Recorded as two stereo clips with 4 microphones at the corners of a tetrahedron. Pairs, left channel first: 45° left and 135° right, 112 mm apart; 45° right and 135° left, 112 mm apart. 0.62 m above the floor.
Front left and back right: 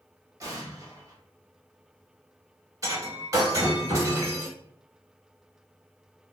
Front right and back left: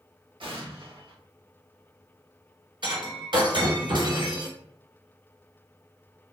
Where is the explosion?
170° left, 0.7 m.